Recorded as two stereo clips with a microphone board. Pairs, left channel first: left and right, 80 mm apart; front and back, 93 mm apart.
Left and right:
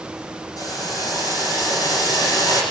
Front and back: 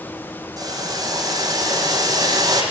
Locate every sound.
0.6 s boiling: 130° left, 9 m